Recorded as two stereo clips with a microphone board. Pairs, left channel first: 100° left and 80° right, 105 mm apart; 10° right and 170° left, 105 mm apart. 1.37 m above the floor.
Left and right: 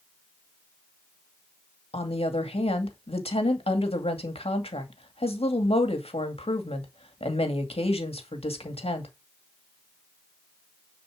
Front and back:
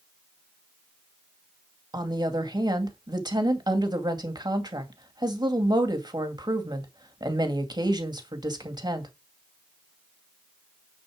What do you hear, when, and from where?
1.9 s a woman speaking: 120° left, 2.5 m